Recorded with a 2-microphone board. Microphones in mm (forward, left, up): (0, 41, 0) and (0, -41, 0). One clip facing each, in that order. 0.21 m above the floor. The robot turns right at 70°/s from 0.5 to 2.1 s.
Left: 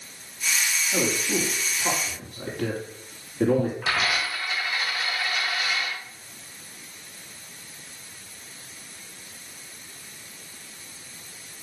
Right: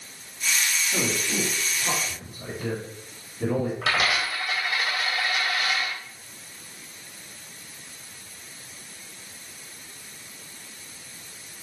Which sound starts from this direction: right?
A dropped coin, at 3.8 s.